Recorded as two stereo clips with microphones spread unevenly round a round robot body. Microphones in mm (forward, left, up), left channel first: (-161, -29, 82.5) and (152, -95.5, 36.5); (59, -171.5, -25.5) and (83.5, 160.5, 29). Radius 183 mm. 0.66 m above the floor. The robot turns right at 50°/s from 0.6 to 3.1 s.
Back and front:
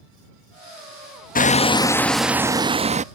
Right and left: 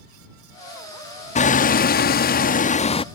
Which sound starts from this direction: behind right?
Hammering, at 1.4 s.